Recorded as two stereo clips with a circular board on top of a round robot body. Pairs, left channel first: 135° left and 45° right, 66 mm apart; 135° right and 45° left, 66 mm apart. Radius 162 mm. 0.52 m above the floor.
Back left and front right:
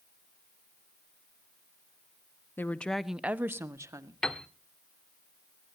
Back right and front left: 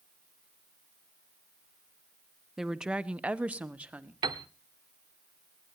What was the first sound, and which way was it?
A woman speaking, 125° left.